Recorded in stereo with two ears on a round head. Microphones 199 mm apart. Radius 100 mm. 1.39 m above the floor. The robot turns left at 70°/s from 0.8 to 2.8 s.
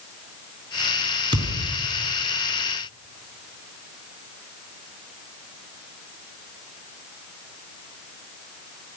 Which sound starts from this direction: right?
A thud, at 1.3 s.